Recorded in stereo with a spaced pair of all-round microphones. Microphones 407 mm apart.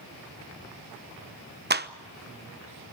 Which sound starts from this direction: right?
A clap, at 1.7 s.